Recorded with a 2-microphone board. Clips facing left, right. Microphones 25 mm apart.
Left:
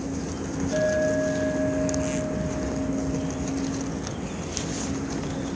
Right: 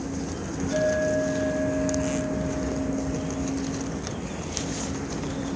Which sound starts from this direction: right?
A clink, at 0.7 s.